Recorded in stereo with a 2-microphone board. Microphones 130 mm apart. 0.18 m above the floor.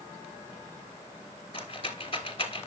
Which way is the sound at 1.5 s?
45° left (ahead or behind).